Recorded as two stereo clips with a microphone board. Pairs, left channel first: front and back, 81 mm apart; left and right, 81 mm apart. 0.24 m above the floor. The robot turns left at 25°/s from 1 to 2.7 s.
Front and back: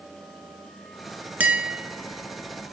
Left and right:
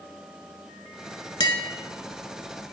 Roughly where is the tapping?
Left.